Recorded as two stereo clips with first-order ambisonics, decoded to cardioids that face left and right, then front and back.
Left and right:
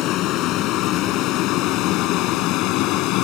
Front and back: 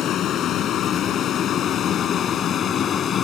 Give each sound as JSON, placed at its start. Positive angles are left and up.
{"t": 0.0, "sound": "a vehicle", "azimuth_deg": 50}